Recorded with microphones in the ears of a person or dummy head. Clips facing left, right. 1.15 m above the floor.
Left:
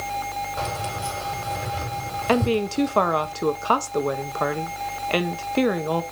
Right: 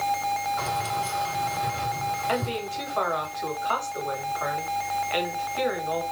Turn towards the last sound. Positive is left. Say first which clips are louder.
# left 12 dB
turn(degrees=75)  # may be behind; listen again after turning